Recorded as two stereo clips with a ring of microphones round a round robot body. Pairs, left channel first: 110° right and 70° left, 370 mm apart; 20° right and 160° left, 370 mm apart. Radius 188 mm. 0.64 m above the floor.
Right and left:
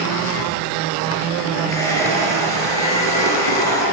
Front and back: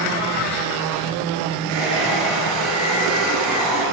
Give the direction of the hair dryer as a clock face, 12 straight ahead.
6 o'clock.